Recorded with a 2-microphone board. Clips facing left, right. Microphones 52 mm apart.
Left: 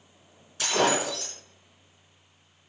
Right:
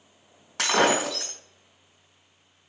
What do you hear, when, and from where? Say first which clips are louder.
0.6 s breaking glass: right 3 dB; 75° right (ahead or behind), 3.5 m